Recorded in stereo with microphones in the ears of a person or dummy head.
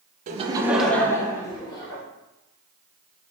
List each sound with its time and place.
0.3 s laughter: 40° right (ahead or behind), 0.6 m; by 2.0 s 25° left (ahead or behind), 1.7 m